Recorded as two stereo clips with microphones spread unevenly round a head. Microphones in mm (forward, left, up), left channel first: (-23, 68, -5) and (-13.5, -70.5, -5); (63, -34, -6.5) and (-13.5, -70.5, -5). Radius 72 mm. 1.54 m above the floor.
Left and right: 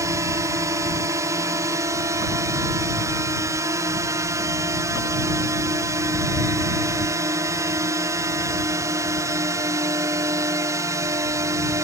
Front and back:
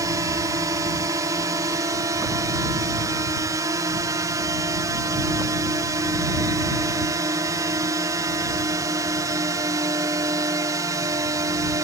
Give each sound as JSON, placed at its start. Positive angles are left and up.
{"t": 0.0, "sound": "a drone", "azimuth_deg": -140}